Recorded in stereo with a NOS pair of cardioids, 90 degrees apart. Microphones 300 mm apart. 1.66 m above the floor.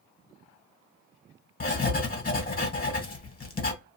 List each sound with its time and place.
1.6 s writing: 30° left, 1.3 m